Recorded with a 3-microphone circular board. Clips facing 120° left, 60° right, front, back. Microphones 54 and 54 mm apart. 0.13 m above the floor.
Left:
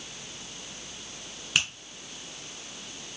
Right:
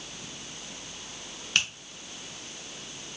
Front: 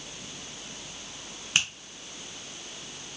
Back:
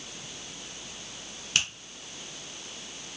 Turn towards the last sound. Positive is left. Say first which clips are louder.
# even, front 2 dB
turn(degrees=50)